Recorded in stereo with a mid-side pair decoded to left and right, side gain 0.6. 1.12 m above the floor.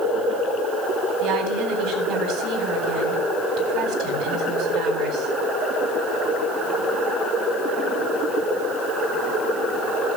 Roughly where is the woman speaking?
Right.